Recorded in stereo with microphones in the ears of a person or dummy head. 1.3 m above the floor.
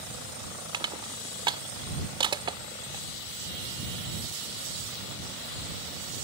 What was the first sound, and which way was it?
Crushing, 25° right (ahead or behind).